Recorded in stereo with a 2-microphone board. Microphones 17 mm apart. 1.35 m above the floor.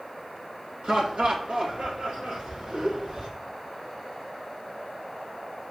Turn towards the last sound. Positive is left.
turn(degrees=-80)